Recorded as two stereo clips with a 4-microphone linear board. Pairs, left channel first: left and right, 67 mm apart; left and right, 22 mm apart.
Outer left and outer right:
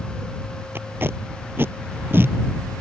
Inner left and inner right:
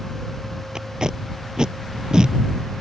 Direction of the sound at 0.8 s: 40° right (ahead or behind).